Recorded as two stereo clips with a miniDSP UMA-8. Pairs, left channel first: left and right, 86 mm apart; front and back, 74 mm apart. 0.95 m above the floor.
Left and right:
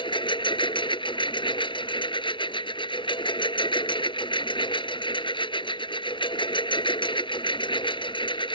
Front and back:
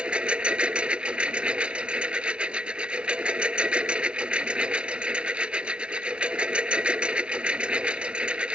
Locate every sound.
0.0 s a lawn mower: 105° left